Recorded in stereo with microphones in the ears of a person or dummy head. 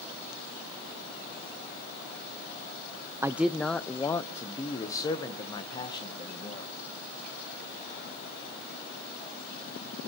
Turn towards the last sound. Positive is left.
turn(degrees=30)  # may be behind; listen again after turning